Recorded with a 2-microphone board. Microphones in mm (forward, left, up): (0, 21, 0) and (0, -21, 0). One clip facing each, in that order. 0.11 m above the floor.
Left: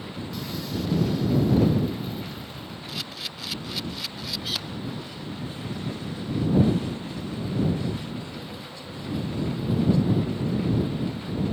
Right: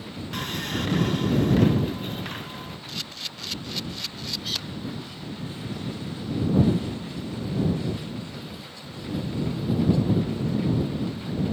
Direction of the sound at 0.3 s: 60° right (ahead or behind).